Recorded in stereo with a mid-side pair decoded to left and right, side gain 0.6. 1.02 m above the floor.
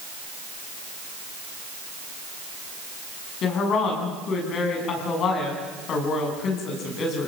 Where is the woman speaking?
50° left, 8.5 m.